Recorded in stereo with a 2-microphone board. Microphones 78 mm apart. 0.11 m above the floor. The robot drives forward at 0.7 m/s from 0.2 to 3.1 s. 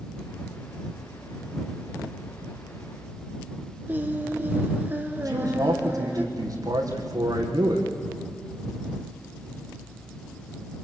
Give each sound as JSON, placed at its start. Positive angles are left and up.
{"t": 3.9, "sound": "singing", "side_deg": -25, "distance_m": 1.4}
{"t": 5.2, "sound": "a man speaking", "side_deg": -50, "distance_m": 4.5}